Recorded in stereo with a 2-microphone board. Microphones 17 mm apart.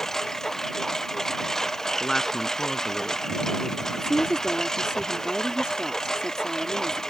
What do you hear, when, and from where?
0.0 s a lawn mower: 30° left (ahead or behind); by 7.1 s 35° left (ahead or behind)
2.0 s a woman speaking: 20° left (ahead or behind)
3.9 s a woman speaking: 55° right (ahead or behind)